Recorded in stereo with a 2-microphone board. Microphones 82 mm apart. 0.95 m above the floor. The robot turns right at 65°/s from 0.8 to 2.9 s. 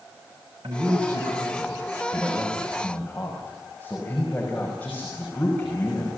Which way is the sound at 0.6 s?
115° right.